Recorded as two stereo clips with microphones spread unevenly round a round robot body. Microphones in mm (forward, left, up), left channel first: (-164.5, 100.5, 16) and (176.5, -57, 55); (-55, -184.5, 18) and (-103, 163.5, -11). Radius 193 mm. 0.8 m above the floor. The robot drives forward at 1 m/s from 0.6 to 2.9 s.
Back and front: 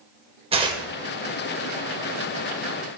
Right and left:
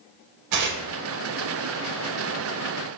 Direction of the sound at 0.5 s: 50° left.